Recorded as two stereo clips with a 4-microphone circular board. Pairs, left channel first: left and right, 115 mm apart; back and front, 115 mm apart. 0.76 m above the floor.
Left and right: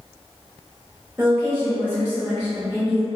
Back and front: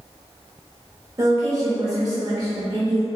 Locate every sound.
1.2 s a woman speaking: 30° right, 0.7 m